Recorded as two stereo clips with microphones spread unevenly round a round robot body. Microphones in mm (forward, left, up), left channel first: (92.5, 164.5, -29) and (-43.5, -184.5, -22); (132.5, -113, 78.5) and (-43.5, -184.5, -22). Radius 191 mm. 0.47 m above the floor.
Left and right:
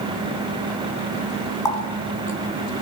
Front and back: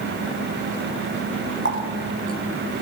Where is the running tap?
150° left, 3 m.